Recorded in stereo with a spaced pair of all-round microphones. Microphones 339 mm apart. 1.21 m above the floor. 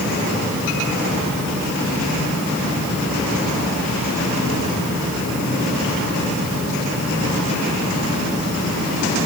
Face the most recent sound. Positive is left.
No sound to turn to.